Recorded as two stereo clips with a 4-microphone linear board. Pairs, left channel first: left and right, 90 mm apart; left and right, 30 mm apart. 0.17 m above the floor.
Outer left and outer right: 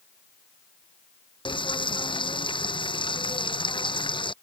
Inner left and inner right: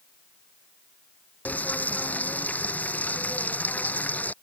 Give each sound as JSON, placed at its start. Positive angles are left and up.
{"t": 1.4, "sound": "frying", "side_deg": 65}